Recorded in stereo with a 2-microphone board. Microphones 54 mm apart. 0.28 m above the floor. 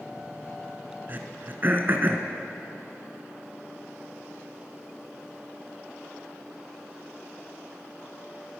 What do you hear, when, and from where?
1.1 s throat clearing: 40° right (ahead or behind), 0.6 m